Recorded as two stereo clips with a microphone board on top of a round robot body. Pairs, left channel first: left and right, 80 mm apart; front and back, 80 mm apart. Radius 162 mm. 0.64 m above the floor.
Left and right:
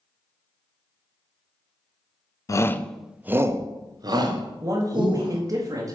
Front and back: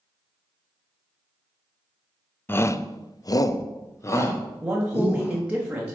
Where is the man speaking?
110° right, 1.4 m.